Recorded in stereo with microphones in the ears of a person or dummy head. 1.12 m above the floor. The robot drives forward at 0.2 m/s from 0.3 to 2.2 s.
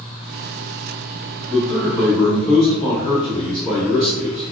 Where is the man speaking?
10° left (ahead or behind), 1.6 m.